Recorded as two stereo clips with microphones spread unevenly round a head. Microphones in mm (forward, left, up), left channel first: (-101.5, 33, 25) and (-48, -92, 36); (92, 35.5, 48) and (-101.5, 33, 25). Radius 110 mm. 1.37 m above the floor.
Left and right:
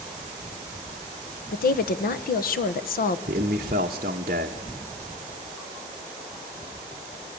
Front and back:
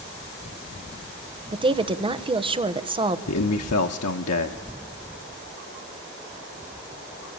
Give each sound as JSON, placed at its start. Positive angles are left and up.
{"t": 1.5, "sound": "a woman speaking", "azimuth_deg": 115, "distance_m": 1.2}
{"t": 3.3, "sound": "a man speaking", "azimuth_deg": -10, "distance_m": 0.9}